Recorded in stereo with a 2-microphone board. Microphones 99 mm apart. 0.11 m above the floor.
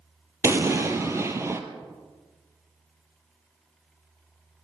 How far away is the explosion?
About 1.1 m.